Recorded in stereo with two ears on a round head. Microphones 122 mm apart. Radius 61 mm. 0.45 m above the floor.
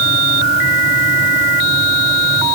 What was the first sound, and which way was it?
Only background noise.